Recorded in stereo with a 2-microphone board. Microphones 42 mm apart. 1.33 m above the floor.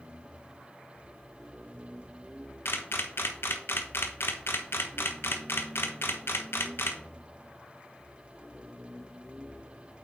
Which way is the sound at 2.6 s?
70° left (ahead or behind).